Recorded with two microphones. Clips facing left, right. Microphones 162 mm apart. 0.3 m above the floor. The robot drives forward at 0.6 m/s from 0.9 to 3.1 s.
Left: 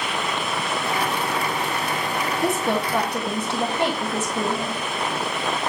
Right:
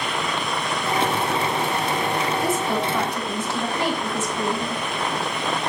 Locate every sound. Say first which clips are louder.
2.4 s a woman speaking: even; 65° left (ahead or behind), 3 m